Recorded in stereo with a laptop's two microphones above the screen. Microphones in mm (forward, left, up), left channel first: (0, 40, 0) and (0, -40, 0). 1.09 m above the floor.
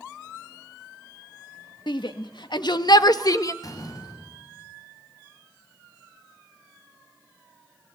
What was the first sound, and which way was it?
A shout, 75° left (ahead or behind).